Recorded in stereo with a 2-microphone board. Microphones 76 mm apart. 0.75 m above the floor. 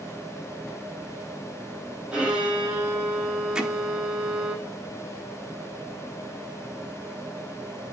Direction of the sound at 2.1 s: 15° right (ahead or behind).